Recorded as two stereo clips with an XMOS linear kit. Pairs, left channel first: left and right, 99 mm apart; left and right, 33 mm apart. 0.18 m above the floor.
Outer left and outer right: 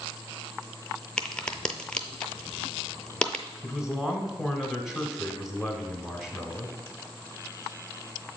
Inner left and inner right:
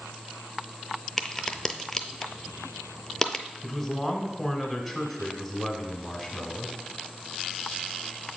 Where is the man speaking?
5° right (ahead or behind), 1.1 m.